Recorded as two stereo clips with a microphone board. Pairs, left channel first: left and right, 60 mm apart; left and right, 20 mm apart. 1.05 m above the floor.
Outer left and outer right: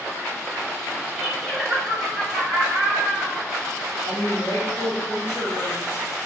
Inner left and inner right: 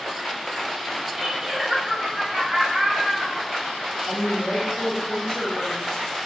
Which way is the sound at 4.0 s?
45° left (ahead or behind).